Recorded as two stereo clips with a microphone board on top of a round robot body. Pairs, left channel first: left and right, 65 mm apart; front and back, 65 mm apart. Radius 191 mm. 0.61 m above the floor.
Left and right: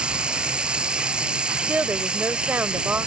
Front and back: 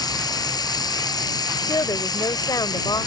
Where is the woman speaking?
25° right.